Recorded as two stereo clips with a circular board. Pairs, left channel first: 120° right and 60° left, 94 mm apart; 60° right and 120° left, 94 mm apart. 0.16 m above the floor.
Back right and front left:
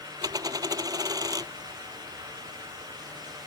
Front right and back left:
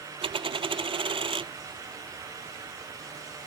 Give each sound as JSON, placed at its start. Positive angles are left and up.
{"t": 0.2, "sound": "a dropped coin", "azimuth_deg": 105}